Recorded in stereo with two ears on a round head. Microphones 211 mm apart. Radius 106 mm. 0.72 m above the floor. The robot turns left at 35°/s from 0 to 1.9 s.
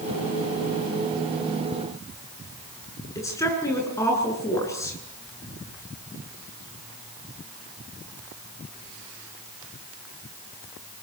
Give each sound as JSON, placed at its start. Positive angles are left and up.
{"t": 3.1, "sound": "a woman speaking", "side_deg": 10, "distance_m": 8.5}